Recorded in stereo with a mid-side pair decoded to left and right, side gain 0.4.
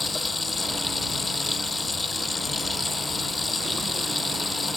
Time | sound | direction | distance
0.0 | running water | 35° left | ?